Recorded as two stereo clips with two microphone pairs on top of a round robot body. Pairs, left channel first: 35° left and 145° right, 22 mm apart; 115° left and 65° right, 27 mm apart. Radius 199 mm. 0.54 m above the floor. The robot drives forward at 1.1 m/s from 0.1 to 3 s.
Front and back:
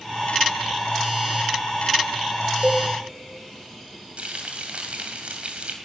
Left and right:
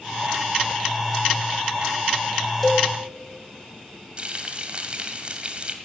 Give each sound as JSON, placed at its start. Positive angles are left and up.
{"t": 2.6, "sound": "a cowbell", "azimuth_deg": -160, "distance_m": 1.6}
{"t": 4.2, "sound": "frying", "azimuth_deg": -120, "distance_m": 1.7}